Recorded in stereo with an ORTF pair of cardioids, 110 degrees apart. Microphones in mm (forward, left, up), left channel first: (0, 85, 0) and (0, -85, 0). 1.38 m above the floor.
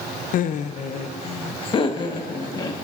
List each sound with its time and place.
0.3 s laughter: 55° left, 0.6 m; by 2.9 s 25° left, 1.7 m